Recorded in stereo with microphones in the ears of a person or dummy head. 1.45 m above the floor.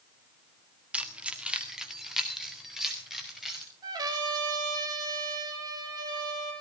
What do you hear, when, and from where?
0.9 s keys jangling: 10° right (ahead or behind), 1.5 m; by 3.6 s centre (ahead or behind), 5.5 m
3.8 s a trumpet: 25° right (ahead or behind), 4.5 m